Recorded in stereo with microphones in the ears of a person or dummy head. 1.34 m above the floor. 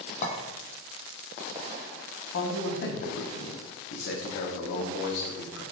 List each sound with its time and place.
0.2 s a clink: 45° left (ahead or behind), 0.6 m
2.3 s a man speaking: 70° left (ahead or behind), 0.6 m